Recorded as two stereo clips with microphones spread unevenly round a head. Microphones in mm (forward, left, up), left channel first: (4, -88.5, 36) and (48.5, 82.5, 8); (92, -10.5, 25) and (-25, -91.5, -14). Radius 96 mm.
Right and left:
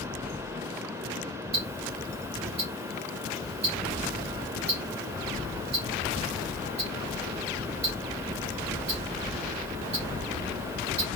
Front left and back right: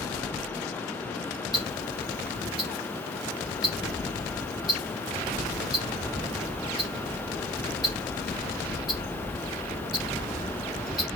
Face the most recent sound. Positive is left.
turn(degrees=85)